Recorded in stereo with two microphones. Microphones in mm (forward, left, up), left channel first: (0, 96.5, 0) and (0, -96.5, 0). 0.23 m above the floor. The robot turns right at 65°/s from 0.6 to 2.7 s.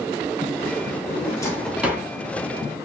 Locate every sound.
1.1 s a drawer: 35° left (ahead or behind), 1.0 m; by 2.1 s 20° right (ahead or behind), 1.0 m